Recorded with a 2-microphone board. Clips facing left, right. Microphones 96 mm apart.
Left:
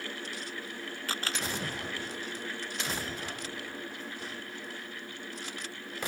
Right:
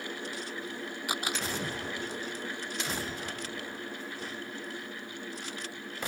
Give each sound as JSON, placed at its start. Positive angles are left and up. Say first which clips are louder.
{"t": 1.1, "sound": "a camera shutter", "louder": "right 2 dB", "side_deg": -15}